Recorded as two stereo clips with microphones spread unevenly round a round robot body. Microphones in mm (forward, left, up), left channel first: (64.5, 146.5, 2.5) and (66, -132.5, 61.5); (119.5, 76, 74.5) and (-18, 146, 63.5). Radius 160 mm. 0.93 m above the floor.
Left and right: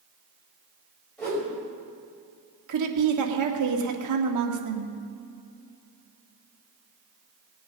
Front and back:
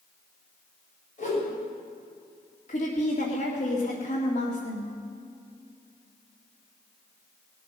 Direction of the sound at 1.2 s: 5° left.